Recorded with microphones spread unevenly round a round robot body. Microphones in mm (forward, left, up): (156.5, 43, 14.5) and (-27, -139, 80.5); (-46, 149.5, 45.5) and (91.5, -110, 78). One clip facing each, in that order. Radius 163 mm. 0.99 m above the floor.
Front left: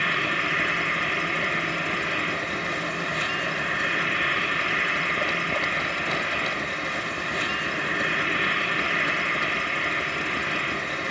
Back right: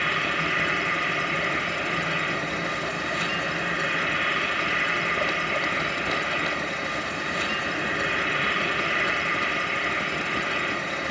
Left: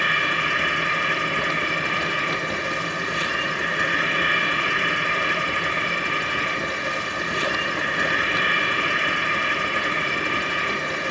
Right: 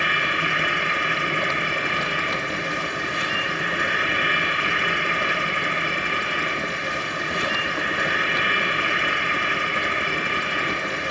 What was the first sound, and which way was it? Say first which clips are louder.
An insect: even, right 1 dB; 170° left.